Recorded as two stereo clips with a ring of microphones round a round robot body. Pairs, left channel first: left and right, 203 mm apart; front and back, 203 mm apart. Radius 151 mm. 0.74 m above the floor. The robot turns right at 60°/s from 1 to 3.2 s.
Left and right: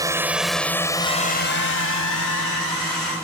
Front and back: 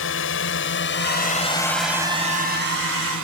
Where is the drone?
20° right; by 3.2 s 170° right.